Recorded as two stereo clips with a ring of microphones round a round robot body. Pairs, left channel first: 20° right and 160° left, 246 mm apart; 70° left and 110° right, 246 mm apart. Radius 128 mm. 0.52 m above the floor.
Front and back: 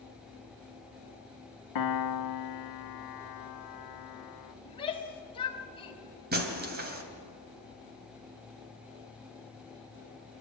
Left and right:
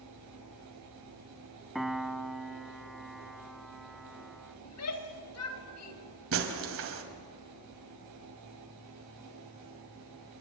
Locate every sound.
1.8 s a piano: 25° right, 0.7 m
4.7 s a shout: 45° left, 3 m
6.3 s breaking glass: 150° right, 2.5 m